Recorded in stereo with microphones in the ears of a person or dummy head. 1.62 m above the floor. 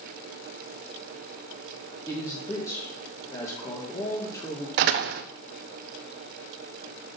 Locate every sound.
2.1 s a man speaking: 25° left (ahead or behind), 1.7 m
4.8 s a door slam: 50° right (ahead or behind), 0.5 m